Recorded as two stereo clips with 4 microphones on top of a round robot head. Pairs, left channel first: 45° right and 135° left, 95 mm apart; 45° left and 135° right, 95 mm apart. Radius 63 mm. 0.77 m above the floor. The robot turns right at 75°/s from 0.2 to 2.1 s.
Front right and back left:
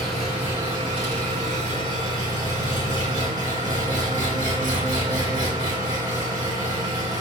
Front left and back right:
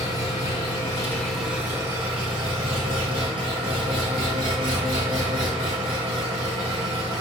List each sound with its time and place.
0.0 s an engine running: 45° left, 4.5 m; by 7.2 s 170° right, 4.5 m